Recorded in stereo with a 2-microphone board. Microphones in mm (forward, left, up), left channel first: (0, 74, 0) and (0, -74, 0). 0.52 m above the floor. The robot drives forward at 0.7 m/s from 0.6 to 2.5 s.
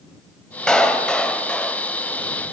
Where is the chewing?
No chewing in this recording.